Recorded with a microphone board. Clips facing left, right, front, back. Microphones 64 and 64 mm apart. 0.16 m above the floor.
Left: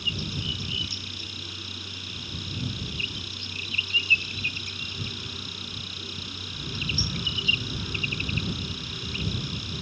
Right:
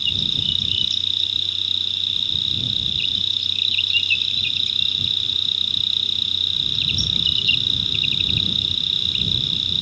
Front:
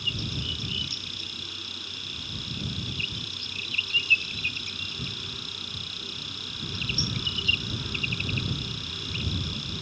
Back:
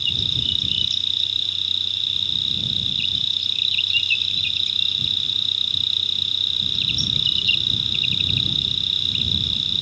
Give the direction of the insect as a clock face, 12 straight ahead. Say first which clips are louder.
Right 4 dB, back 5 dB; 11 o'clock.